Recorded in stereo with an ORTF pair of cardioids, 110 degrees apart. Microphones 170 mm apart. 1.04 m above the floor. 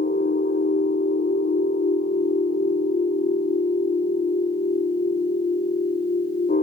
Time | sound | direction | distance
0.0 | a machine running | 60° left | 1.1 m